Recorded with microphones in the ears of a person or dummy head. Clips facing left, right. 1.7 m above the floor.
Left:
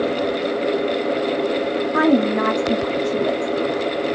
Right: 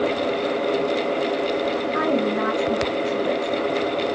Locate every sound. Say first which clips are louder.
1.9 s a woman speaking: left 7 dB; 70° left (ahead or behind), 0.5 m